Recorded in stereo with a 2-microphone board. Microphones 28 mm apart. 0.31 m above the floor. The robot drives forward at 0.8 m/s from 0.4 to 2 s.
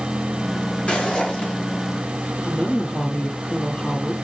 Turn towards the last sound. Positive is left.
turn(degrees=50)  # may be behind; listen again after turning